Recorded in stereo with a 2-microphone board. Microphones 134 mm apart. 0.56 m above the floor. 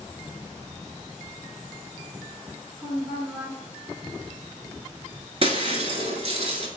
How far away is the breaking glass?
About 0.8 m.